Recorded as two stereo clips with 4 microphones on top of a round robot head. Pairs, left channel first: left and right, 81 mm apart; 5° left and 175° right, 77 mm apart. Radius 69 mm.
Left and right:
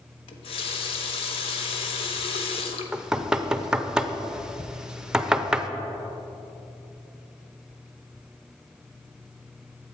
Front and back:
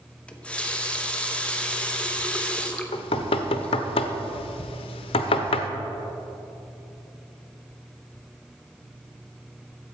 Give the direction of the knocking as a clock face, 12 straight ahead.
12 o'clock.